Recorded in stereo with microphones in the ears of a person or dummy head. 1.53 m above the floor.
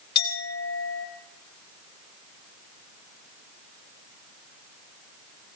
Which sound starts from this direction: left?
A clink, at 0.1 s.